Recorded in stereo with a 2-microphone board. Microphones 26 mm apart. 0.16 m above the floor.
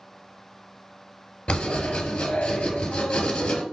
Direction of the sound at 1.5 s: 55° left (ahead or behind).